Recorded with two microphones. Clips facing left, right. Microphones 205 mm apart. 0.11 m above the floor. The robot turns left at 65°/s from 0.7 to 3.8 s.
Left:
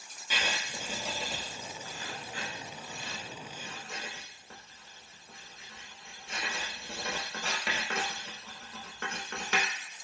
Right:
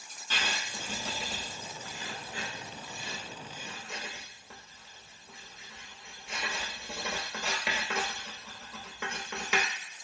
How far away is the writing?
About 0.8 m.